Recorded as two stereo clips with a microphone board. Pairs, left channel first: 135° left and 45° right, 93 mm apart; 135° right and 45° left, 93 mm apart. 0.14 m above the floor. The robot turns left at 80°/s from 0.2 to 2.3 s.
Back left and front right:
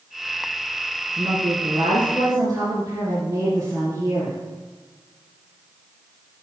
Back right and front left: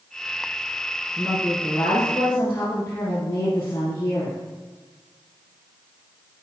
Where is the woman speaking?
15° left, 2 m; by 4.3 s 75° right, 2 m.